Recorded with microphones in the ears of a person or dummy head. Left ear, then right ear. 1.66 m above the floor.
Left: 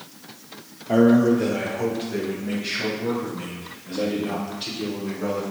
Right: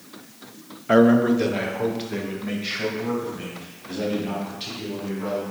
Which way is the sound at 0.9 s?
45° right (ahead or behind).